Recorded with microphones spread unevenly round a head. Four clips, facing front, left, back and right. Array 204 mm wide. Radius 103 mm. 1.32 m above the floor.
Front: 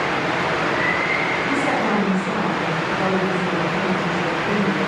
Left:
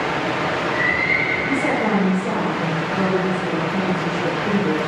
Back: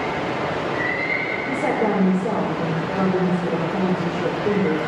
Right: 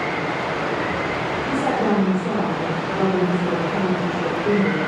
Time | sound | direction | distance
1.5 | a woman speaking | 160° right | 3.5 m